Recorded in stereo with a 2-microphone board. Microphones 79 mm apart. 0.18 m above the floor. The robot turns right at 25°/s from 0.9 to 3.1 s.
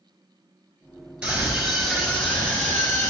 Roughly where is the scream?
Ahead.